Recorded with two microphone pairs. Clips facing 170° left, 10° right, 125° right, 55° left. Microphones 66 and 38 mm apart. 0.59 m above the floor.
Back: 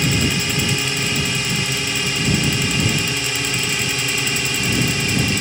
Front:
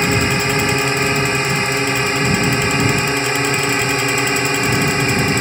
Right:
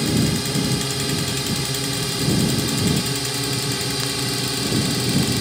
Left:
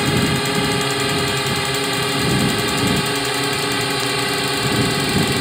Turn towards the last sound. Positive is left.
turn(degrees=15)